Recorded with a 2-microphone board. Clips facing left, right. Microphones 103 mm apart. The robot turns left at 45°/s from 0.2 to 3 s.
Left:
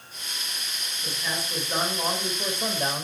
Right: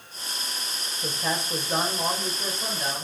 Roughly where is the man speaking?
Behind right.